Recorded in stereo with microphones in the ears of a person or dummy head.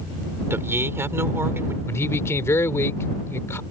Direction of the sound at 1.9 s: 15° left (ahead or behind).